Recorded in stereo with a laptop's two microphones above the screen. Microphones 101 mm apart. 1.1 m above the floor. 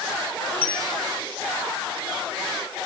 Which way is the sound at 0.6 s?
20° left (ahead or behind).